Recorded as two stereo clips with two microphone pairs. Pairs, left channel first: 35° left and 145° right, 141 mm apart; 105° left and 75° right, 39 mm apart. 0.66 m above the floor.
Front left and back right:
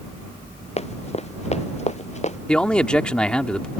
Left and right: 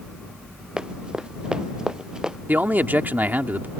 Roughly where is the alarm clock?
No alarm clock in this recording.